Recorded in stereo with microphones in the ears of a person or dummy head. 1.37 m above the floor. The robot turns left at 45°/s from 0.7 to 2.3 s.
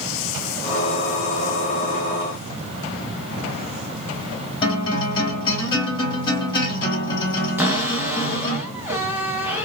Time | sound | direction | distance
4.6 | a guitar | 25° left (ahead or behind) | 2 m
7.6 | a cupboard door | 10° right (ahead or behind) | 0.9 m